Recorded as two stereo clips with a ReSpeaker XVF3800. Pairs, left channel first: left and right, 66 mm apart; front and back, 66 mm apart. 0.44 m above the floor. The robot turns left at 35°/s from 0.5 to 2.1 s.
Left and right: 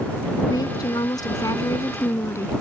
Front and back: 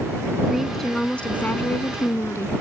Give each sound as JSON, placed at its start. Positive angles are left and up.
{"t": 0.5, "sound": "a woman speaking", "azimuth_deg": 95}